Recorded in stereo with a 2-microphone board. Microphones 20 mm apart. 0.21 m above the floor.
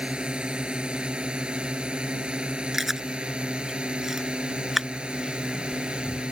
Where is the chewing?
20° right (ahead or behind).